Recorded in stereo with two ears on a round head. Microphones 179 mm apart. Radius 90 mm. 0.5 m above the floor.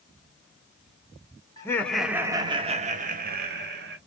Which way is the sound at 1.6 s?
20° left (ahead or behind).